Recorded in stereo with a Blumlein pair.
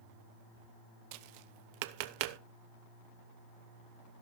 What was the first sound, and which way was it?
Tapping, 45° right.